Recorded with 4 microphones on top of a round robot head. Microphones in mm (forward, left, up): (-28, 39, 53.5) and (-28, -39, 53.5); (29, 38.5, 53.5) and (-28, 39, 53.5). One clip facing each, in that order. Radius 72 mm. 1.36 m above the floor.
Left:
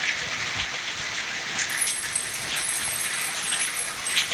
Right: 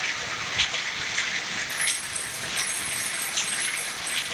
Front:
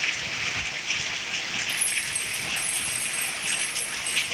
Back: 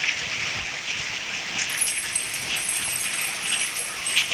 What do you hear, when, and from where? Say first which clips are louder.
1.7 s keys jangling: even, even; 105° left, 3 m; by 4.2 s 90° left, 6.5 m